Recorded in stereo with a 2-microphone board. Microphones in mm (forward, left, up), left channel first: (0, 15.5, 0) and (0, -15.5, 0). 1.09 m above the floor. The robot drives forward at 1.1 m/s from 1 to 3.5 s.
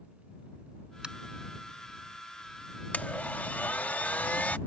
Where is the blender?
65° left (ahead or behind); by 4.6 s 70° left (ahead or behind).